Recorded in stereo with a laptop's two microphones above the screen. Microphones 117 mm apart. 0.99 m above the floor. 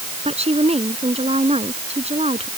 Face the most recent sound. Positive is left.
turn(degrees=-65)  # may be behind; listen again after turning